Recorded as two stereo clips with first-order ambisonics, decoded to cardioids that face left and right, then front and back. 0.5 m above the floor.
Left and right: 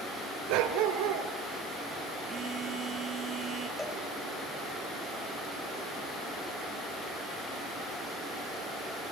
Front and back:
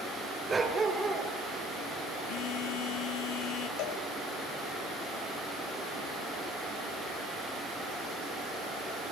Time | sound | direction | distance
0.5 | a dog barking | 105° right | 2 m
2.3 | a phone buzzing | 20° right | 2.5 m
3.8 | a cowbell | 5° left | 3 m